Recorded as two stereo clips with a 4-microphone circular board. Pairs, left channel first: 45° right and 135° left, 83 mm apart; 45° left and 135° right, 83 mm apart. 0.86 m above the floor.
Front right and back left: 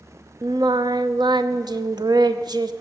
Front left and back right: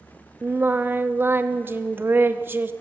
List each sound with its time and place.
0.4 s singing: 160° left, 0.7 m